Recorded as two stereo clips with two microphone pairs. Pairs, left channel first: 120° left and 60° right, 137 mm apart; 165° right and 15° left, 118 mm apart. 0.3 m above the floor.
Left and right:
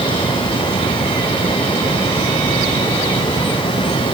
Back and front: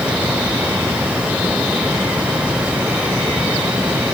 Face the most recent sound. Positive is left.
No sound to turn to.